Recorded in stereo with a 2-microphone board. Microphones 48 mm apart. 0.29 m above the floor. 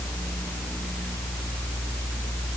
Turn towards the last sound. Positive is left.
No sound to turn to.